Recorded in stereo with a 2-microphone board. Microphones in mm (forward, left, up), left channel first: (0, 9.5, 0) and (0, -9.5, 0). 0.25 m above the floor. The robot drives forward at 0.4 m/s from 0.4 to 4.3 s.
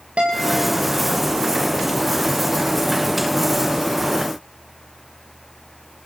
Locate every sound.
0.2 s a guitar: 75° right (ahead or behind), 9.5 m